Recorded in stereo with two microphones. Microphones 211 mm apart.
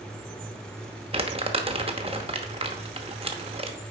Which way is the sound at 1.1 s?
30° right (ahead or behind).